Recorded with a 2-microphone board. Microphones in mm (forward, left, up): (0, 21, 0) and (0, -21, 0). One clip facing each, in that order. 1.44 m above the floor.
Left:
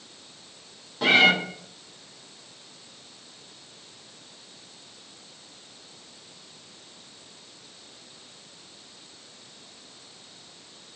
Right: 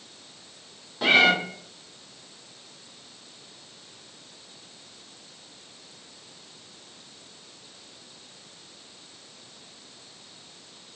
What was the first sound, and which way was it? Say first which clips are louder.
A cat meowing: even; 5° right (ahead or behind).